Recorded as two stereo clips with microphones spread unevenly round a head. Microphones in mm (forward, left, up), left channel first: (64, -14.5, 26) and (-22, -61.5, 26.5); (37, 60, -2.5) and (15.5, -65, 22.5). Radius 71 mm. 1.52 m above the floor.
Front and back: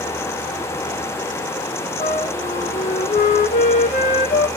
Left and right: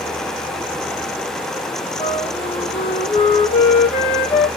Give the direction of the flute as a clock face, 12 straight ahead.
11 o'clock.